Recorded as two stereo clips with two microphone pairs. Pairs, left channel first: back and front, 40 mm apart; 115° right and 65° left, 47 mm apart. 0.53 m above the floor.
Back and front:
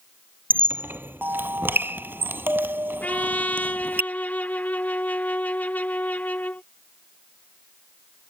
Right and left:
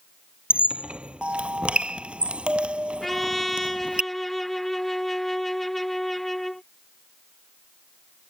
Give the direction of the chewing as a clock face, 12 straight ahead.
No chewing in this recording.